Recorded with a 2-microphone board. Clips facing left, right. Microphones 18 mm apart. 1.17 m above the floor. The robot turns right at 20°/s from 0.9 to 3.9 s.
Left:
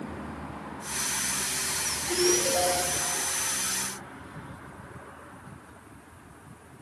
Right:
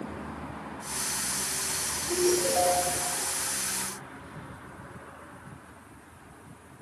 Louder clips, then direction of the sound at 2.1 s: Even; 30° right (ahead or behind).